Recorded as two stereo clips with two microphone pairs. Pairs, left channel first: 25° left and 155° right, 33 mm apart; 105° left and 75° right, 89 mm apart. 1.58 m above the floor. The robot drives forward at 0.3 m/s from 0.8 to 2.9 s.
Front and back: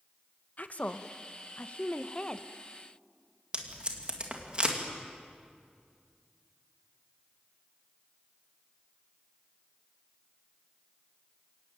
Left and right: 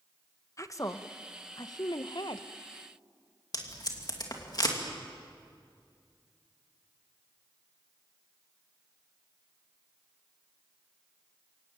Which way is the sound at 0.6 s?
55° left.